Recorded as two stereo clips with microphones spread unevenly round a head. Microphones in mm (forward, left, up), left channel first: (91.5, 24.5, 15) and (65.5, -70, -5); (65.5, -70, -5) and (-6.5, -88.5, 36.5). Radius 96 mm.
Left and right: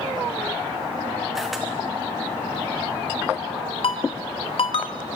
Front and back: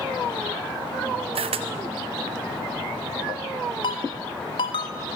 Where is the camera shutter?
170° left, 0.8 m.